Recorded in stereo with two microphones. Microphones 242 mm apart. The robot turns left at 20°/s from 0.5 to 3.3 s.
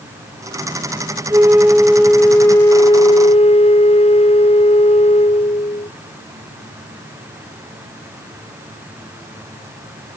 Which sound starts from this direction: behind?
A flute, at 1.3 s.